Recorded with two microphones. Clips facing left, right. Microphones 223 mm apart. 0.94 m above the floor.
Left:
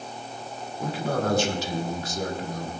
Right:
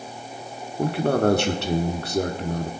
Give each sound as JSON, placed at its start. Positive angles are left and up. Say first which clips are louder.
{"t": 0.8, "sound": "a man speaking", "louder": "right 7 dB", "side_deg": -75, "distance_m": 1.6}